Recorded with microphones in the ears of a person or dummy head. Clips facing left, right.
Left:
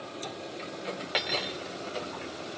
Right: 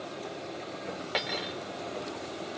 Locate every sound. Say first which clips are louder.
1.1 s cutlery clinking: even; centre (ahead or behind)